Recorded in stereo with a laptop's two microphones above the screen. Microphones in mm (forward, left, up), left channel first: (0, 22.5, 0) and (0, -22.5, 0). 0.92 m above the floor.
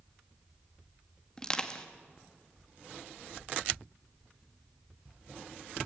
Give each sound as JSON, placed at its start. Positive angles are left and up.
{"t": 1.4, "sound": "crushing", "side_deg": 20, "distance_m": 1.7}